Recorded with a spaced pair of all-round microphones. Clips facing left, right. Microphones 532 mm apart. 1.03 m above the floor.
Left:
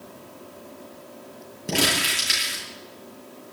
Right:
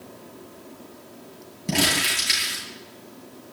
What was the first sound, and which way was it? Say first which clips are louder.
Crumpling: right 1 dB; 20° right (ahead or behind).